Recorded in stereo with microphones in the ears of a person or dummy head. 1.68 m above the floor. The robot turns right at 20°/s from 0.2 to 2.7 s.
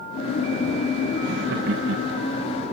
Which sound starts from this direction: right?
Laughter, at 1.2 s.